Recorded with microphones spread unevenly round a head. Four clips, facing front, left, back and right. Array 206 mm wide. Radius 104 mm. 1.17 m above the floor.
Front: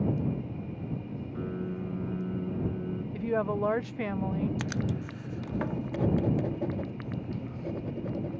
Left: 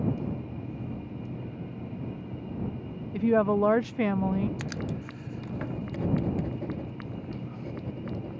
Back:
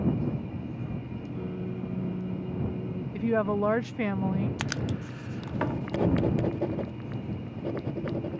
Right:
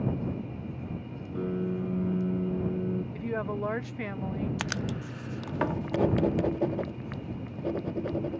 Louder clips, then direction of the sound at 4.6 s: Right 1 dB, even; 150° right.